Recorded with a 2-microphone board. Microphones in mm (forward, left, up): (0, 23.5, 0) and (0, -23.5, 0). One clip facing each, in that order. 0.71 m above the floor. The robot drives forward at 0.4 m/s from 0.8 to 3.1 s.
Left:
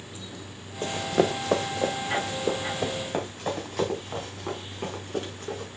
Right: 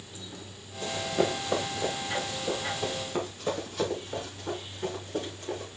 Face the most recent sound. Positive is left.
turn(degrees=85)